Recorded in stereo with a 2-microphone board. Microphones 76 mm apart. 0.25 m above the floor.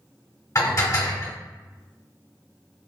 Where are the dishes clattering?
45° left (ahead or behind), 1.3 m.